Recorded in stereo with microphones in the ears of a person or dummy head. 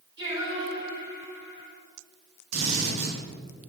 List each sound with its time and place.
0.2 s singing: 30° right (ahead or behind), 5 m
2.5 s a drill: 90° right, 4 m